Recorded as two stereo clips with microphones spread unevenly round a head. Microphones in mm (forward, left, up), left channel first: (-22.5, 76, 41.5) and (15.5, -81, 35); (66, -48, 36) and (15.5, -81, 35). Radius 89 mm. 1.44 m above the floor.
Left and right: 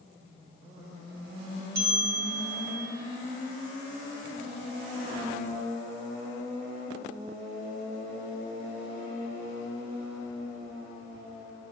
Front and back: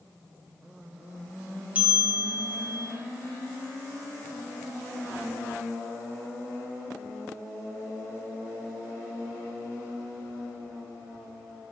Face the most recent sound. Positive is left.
turn(degrees=-80)